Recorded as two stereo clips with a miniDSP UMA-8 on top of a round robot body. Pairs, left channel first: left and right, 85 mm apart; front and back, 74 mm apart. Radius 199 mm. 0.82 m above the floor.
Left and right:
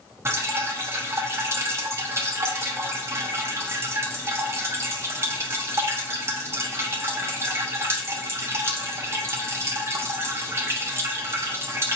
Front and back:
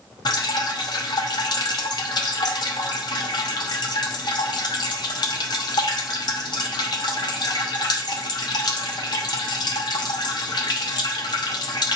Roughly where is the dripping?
Ahead right.